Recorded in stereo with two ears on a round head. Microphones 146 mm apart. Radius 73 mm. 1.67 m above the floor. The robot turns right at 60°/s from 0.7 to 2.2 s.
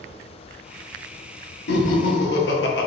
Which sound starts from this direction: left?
Laughter, at 1.7 s.